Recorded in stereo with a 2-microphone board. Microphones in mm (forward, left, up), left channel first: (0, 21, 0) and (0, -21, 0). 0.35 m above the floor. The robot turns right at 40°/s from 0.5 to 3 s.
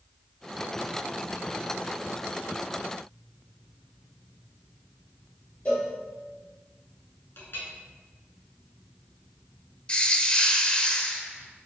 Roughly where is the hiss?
Left.